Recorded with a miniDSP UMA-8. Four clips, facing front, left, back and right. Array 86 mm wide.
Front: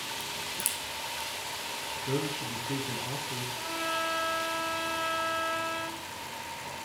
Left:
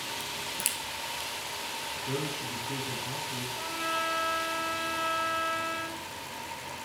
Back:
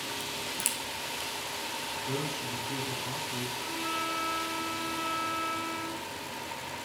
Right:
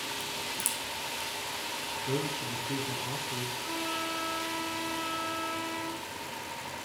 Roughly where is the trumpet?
Ahead left.